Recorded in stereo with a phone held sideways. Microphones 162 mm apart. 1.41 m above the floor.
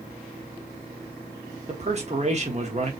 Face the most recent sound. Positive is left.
turn(degrees=-45)  # may be behind; listen again after turning